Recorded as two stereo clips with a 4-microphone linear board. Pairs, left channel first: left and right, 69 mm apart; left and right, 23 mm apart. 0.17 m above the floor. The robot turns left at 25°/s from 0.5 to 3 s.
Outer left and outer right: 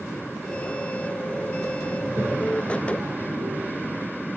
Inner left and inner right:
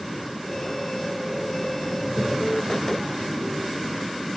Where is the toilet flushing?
45° right (ahead or behind), 6 m; by 3.9 s 70° right (ahead or behind), 6 m.